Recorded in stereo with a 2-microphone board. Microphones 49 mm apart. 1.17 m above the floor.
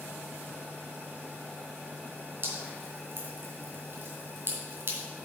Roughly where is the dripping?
Right.